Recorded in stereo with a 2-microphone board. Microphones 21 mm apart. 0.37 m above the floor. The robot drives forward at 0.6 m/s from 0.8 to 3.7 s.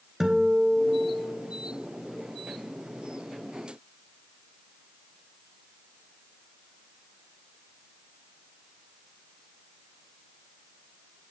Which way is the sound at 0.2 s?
20° right (ahead or behind).